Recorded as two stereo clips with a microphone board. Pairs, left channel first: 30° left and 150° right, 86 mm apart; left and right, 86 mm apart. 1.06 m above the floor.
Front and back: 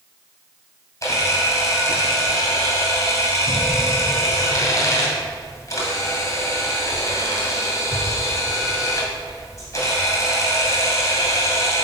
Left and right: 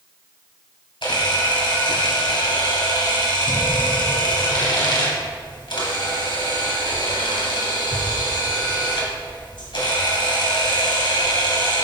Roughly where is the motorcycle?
No motorcycle in this recording.